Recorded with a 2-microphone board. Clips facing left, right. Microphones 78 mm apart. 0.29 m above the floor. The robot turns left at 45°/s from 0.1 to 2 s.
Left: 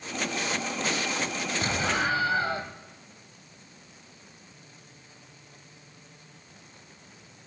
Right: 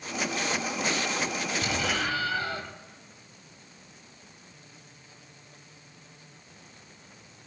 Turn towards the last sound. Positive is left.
turn(degrees=25)  # may be behind; listen again after turning